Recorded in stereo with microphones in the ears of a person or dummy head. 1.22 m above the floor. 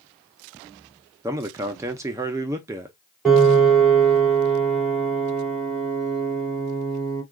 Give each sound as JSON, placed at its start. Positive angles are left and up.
{"t": 1.2, "sound": "a man speaking", "side_deg": -15, "distance_m": 0.5}
{"t": 3.2, "sound": "a piano", "side_deg": -5, "distance_m": 2.5}